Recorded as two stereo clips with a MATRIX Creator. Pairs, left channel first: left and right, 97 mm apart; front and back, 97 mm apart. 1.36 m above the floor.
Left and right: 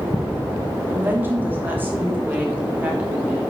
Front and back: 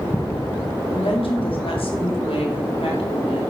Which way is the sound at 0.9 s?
20° right.